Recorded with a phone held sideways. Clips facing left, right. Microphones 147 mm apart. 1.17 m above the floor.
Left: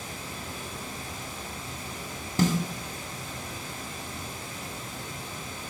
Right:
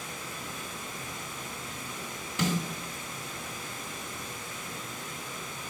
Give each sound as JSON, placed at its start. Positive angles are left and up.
{"t": 0.0, "sound": "running water", "side_deg": 30, "distance_m": 1.1}
{"t": 2.4, "sound": "a snare drum", "side_deg": 35, "distance_m": 1.2}